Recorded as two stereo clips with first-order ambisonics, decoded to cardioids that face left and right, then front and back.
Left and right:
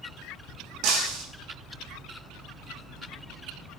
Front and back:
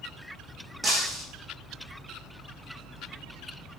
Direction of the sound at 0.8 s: 100° right.